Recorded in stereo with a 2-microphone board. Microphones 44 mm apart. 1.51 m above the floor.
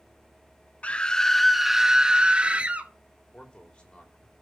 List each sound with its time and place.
0.8 s a scream: 30° left (ahead or behind), 0.7 m; by 2.9 s 35° right (ahead or behind), 1.4 m
3.3 s a man speaking: 25° left (ahead or behind), 3.5 m